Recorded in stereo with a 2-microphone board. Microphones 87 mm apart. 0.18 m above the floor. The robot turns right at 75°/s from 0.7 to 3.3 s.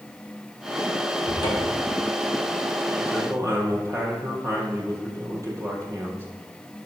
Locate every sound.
1.2 s a cupboard door: 50° left, 4 m; by 1.9 s 100° left, 4 m
3.0 s a man speaking: 20° right (ahead or behind), 4.5 m; by 6.3 s 40° right (ahead or behind), 4.5 m